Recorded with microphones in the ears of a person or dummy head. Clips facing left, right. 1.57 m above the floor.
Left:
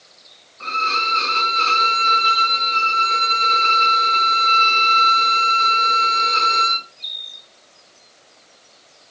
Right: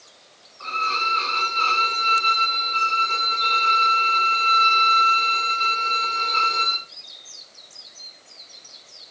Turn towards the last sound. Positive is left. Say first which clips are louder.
# left 3 dB
turn(degrees=40)  # may be behind; listen again after turning